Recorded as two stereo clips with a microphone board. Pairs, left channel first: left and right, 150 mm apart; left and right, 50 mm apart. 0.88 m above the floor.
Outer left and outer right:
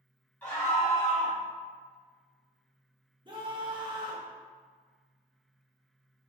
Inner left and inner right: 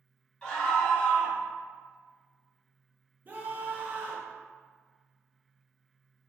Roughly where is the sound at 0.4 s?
Centre.